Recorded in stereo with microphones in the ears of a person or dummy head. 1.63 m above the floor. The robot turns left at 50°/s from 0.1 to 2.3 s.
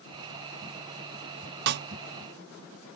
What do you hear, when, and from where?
1.7 s a snare drum: 55° right (ahead or behind); by 1.9 s 45° right (ahead or behind)